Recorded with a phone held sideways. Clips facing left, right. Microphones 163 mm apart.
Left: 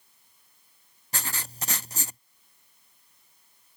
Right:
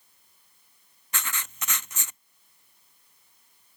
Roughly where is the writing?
Left.